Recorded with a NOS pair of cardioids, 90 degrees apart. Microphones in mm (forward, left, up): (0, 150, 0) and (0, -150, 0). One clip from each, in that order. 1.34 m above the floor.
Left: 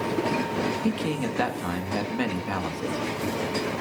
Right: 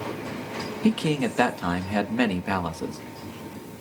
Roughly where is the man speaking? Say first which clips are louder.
Right 3 dB; ahead right.